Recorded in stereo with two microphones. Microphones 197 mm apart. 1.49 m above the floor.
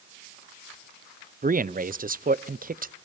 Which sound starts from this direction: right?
A man speaking, at 1.4 s.